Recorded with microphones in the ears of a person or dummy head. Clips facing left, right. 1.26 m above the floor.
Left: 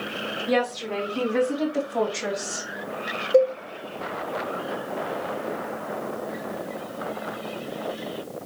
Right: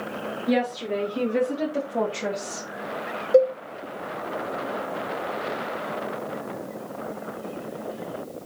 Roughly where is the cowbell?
Right.